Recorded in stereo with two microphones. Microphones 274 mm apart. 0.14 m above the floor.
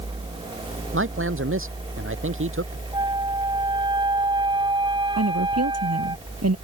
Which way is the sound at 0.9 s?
50° right (ahead or behind).